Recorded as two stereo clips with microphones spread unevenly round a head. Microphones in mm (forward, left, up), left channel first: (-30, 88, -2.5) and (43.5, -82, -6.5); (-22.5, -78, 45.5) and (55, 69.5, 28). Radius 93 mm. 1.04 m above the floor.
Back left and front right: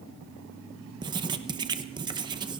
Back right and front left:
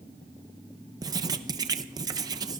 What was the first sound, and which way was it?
Writing, straight ahead.